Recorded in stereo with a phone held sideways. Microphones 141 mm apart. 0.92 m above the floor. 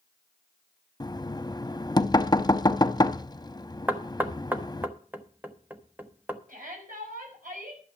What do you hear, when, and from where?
1.0 s knocking: 30° left (ahead or behind), 0.6 m
3.9 s knocking: 10° right (ahead or behind), 1.0 m
6.5 s a shout: 80° right, 6 m